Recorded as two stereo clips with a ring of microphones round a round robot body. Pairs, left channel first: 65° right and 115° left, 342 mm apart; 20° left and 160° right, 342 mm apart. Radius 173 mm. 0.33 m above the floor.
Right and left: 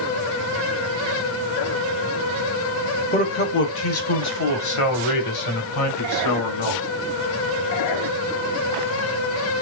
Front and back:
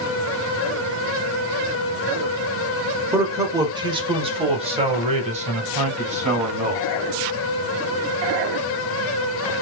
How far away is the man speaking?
About 0.9 m.